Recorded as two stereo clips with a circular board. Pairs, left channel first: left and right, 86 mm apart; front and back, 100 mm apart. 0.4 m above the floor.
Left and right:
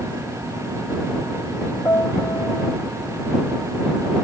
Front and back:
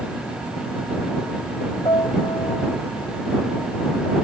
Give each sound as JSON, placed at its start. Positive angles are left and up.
{"t": 1.9, "sound": "a piano", "azimuth_deg": 35}